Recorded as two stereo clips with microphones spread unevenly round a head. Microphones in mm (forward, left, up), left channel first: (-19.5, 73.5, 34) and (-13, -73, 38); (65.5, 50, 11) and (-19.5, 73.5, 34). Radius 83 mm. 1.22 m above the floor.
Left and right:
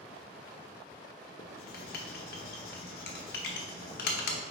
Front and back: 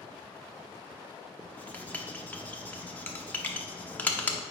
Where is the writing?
65° left, 0.7 m.